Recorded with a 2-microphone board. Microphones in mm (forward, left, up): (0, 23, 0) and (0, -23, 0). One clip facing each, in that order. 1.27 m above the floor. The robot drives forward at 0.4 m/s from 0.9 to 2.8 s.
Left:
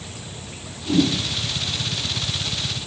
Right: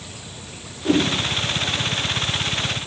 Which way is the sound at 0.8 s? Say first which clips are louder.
Even; 80° right.